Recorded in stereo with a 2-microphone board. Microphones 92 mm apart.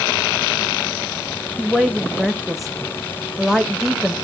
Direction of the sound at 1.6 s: Centre (ahead or behind).